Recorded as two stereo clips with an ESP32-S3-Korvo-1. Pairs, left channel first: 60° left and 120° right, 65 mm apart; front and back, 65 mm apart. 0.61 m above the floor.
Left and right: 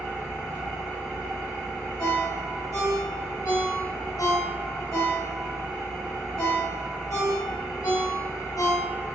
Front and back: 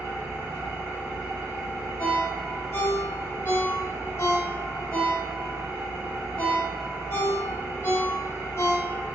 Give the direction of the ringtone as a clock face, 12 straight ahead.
11 o'clock.